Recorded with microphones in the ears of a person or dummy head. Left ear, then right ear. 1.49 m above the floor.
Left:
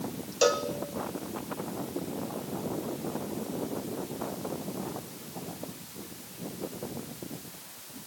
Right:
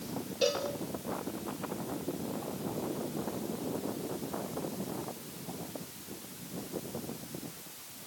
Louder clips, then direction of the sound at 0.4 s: Left 5 dB; 40° left (ahead or behind).